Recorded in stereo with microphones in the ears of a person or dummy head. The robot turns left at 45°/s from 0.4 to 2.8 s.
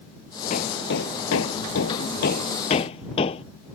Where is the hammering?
45° left (ahead or behind); by 3.4 s 30° left (ahead or behind).